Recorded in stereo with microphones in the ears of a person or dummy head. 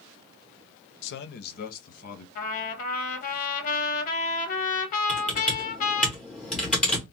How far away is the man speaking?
About 0.5 m.